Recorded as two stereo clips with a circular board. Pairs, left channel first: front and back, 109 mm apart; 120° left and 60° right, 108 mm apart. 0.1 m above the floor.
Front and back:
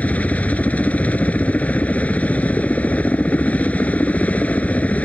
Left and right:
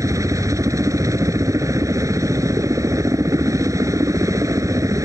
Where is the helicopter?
60° right.